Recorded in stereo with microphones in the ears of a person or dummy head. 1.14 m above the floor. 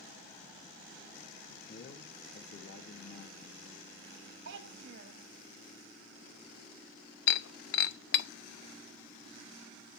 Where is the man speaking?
55° left (ahead or behind), 1.2 m.